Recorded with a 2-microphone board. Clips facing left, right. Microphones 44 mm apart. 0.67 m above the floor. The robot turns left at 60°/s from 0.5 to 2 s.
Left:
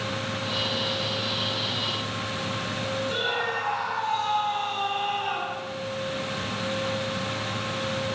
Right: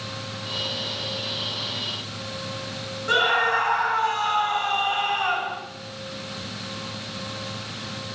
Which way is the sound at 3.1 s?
65° right (ahead or behind).